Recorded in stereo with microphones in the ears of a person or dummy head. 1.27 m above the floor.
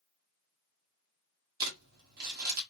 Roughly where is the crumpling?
Right.